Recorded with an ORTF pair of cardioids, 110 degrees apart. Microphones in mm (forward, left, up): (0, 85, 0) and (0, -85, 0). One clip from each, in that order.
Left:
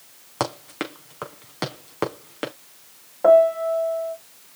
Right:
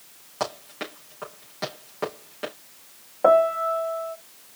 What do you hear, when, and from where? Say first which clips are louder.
0.4 s running footsteps: left 3 dB; 55° left, 5 m
3.2 s a piano: left 3 dB; 10° right, 1.6 m